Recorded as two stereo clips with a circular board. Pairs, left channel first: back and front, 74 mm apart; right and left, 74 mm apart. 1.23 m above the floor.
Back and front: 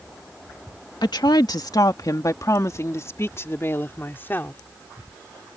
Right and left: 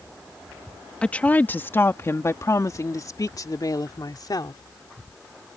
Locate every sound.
1.0 s a woman speaking: 165° right; by 4.6 s 115° right